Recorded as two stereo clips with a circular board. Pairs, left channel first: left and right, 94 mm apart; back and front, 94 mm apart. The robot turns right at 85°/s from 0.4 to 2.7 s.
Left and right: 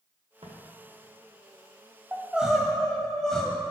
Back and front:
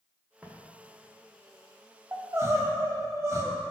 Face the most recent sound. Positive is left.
turn(degrees=10)